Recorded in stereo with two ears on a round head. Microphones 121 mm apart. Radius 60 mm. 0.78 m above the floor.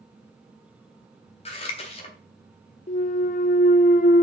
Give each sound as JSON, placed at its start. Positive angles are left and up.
{"t": 1.4, "sound": "scissors", "side_deg": 45, "distance_m": 3.0}
{"t": 2.9, "sound": "a clunk", "side_deg": 55, "distance_m": 0.5}